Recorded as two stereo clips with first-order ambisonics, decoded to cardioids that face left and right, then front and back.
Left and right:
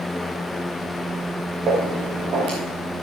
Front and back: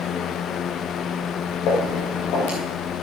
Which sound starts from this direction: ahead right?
Footsteps, at 1.7 s.